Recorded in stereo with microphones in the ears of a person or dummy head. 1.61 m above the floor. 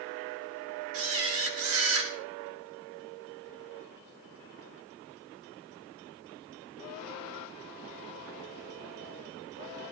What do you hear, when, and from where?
0.9 s a camera shutter: 70° right (ahead or behind), 2.5 m